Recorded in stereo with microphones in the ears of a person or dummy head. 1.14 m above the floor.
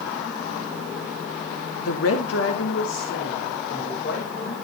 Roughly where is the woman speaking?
Left.